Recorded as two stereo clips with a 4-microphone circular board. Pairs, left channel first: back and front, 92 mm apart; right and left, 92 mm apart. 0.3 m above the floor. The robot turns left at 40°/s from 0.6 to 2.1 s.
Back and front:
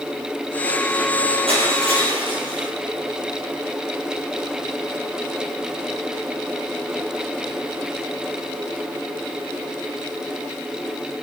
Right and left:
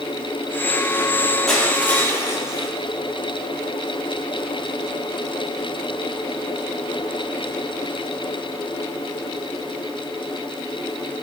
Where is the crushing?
5° right, 7 m; by 2.7 s 30° right, 7 m.